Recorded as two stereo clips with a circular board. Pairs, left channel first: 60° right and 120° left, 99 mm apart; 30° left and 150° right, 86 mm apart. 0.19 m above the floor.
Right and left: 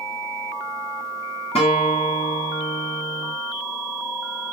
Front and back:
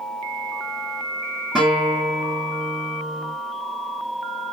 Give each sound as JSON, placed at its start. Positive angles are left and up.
{"t": 1.6, "sound": "a guitar", "azimuth_deg": -65, "distance_m": 6.5}